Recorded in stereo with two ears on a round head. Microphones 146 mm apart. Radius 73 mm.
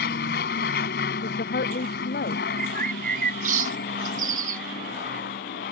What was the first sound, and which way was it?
An aircraft, 65° left (ahead or behind).